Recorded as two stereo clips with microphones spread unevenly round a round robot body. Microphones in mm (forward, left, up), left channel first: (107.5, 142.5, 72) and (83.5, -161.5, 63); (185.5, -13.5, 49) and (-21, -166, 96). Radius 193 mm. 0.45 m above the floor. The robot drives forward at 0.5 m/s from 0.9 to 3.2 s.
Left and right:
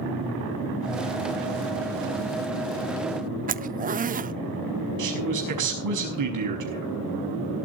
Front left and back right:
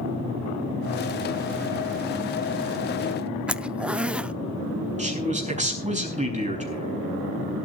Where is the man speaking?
80° right, 5.5 m.